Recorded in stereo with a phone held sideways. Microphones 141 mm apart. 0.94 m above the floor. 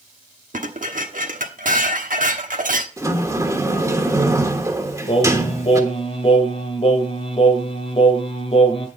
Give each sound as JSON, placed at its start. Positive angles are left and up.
{"t": 0.5, "sound": "dishes clattering", "side_deg": -80, "distance_m": 1.2}
{"t": 3.0, "sound": "a sliding door", "side_deg": -20, "distance_m": 1.3}
{"t": 5.1, "sound": "singing", "side_deg": 45, "distance_m": 1.5}